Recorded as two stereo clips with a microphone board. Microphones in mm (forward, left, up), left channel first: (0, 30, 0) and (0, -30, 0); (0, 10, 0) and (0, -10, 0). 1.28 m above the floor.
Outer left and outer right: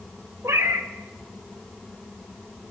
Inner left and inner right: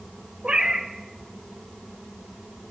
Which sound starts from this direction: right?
A cat meowing, at 0.4 s.